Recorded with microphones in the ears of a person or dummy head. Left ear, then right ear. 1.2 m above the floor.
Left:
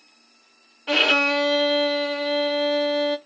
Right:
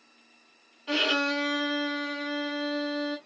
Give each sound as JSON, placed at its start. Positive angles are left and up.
{"t": 0.9, "sound": "a violin", "side_deg": 35, "distance_m": 0.6}